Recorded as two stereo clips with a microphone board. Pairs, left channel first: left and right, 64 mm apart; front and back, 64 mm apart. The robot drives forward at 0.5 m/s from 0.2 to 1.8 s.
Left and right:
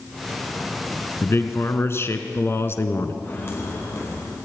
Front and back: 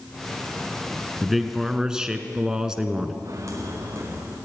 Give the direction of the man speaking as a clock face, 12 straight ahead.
9 o'clock.